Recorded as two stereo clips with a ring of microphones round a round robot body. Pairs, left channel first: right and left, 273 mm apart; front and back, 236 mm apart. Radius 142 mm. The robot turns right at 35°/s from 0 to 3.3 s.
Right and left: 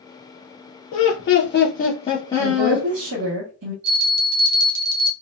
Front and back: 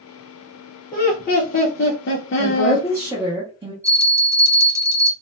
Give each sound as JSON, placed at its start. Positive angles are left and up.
{"t": 0.9, "sound": "laughter", "azimuth_deg": -70, "distance_m": 0.6}
{"t": 2.4, "sound": "a woman speaking", "azimuth_deg": 75, "distance_m": 1.0}
{"t": 3.8, "sound": "a bell", "azimuth_deg": 100, "distance_m": 0.7}